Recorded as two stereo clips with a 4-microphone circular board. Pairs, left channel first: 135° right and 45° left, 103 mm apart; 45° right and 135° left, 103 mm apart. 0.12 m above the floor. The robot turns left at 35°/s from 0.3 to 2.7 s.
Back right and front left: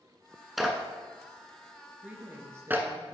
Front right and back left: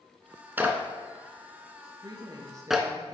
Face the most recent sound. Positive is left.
turn(degrees=90)